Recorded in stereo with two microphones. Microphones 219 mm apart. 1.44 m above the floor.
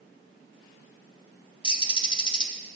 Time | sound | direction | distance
1.6 | a bird | 20° left (ahead or behind) | 0.5 m